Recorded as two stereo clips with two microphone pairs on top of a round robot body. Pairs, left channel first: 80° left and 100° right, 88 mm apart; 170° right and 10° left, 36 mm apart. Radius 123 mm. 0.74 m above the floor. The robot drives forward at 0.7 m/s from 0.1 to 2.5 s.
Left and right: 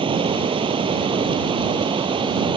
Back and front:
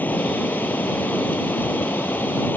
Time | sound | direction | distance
0.0 | running water | 125° right | ?